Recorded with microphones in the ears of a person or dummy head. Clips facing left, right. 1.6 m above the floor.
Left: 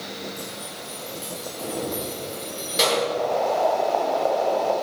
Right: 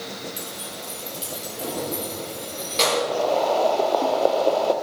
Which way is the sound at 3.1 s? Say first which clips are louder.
Right 2 dB; 50° right (ahead or behind).